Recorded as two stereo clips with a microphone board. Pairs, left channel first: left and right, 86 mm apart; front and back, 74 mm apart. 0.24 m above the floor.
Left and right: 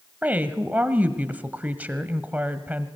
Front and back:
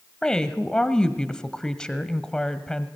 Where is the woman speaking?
60° right, 1.2 m.